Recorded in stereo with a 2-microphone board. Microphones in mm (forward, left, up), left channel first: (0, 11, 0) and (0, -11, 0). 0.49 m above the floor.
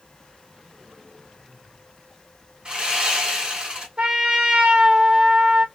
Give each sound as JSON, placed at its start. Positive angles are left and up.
{"t": 2.6, "sound": "sawing", "side_deg": -45, "distance_m": 1.7}
{"t": 4.0, "sound": "a trumpet", "side_deg": -55, "distance_m": 1.1}